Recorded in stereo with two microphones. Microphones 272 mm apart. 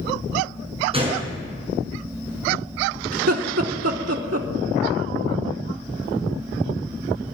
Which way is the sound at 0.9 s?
20° right (ahead or behind).